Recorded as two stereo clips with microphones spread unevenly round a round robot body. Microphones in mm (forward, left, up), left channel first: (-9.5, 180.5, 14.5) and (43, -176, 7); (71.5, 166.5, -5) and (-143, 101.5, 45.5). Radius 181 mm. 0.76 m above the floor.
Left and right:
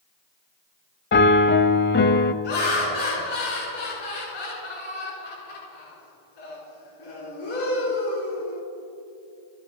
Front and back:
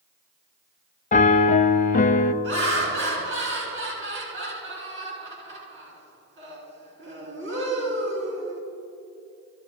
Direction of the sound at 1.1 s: 40° left.